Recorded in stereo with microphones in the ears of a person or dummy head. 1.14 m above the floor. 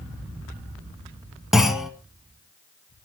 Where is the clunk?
Centre (ahead or behind), 1.5 m.